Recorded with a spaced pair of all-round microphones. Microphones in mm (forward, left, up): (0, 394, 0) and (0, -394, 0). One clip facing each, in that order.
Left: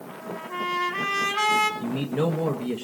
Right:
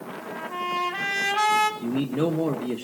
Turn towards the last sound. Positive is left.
turn(degrees=30)  # may be behind; listen again after turning